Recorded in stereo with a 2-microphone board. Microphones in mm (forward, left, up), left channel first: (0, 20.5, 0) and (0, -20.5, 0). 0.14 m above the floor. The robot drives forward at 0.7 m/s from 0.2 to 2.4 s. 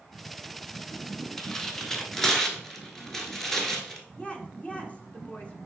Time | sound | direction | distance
1.4 | tearing paper | 10° left (ahead or behind) | 0.7 m
4.2 | a woman speaking | 30° left (ahead or behind) | 1.3 m